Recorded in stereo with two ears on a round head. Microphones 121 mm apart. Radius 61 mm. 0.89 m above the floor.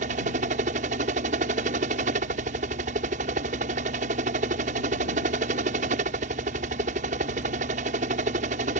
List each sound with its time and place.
0.0 s a helicopter: 60° right (ahead or behind)